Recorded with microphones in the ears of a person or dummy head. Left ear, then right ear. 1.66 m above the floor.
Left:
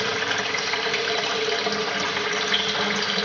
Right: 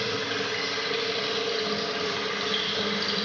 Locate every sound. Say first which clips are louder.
0.0 s running water: left 4 dB; 35° left (ahead or behind), 0.9 m